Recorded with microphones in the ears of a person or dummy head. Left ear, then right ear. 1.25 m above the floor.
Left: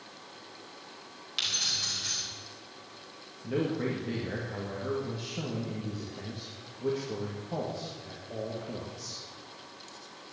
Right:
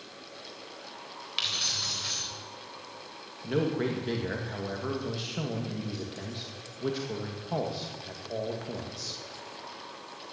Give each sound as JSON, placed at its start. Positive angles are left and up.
{"t": 1.4, "sound": "keys jangling", "side_deg": -20, "distance_m": 3.5}
{"t": 3.4, "sound": "a man speaking", "side_deg": -40, "distance_m": 2.0}